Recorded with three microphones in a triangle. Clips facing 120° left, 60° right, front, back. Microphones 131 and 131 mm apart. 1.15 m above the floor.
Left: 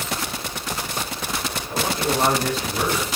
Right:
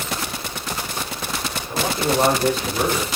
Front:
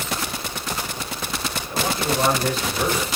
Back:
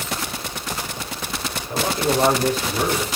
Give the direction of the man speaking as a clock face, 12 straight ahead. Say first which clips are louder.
Right 2 dB, back 3 dB; 5 o'clock.